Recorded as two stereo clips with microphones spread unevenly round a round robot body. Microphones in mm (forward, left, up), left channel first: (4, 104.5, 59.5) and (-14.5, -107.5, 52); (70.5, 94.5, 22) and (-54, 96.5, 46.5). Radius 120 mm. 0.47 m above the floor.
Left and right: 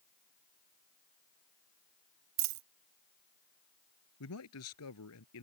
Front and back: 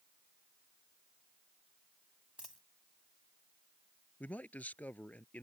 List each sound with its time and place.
2.4 s a dropped coin: 95° right
4.2 s a man speaking: 75° left